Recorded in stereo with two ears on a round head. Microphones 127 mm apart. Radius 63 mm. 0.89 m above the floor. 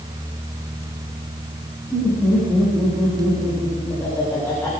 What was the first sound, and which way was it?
Laughter, 5° left (ahead or behind).